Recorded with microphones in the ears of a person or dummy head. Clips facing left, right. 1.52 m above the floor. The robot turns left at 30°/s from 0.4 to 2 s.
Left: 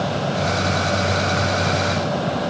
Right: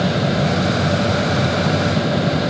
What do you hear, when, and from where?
Only background noise.